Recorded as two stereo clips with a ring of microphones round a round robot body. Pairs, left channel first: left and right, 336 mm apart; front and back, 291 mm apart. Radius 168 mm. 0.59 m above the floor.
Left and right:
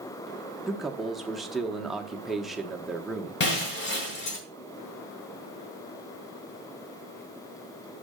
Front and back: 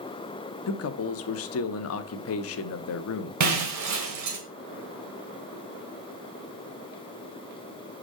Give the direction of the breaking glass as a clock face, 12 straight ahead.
7 o'clock.